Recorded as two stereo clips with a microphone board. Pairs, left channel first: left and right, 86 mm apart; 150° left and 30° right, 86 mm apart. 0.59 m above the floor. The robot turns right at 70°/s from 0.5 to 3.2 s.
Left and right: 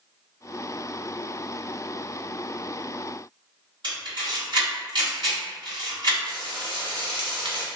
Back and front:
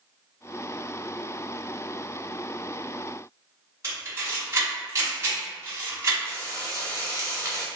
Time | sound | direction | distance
3.8 | a camera shutter | 80° right | 1.8 m
6.2 | frying | 85° right | 0.7 m